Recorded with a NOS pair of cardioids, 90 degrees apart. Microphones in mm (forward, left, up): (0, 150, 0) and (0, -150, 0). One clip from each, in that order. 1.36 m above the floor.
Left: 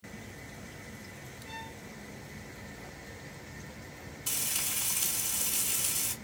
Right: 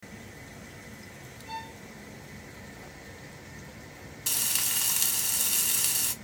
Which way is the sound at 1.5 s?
15° right.